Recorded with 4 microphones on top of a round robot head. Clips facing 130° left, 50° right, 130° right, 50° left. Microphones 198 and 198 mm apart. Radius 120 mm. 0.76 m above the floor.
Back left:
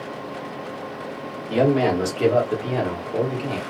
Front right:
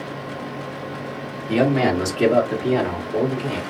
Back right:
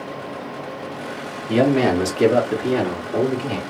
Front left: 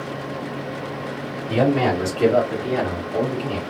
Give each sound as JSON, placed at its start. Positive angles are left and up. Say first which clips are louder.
{"t": 1.5, "sound": "a man speaking", "louder": "even, back right 2 dB", "azimuth_deg": -110, "distance_m": 1.5}